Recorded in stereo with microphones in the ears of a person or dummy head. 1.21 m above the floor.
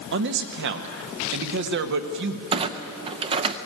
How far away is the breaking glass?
I don't hear breaking glass.